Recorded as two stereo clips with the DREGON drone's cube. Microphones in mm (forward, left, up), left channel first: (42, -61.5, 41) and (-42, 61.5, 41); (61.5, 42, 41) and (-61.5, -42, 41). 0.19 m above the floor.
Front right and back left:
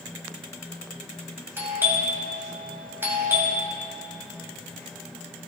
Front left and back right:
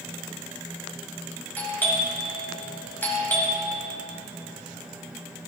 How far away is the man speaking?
I don't hear a man speaking.